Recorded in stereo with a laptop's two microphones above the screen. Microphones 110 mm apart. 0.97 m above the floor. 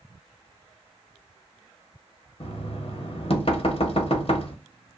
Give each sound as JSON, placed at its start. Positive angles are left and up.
{"t": 2.4, "sound": "knocking", "side_deg": 55, "distance_m": 0.7}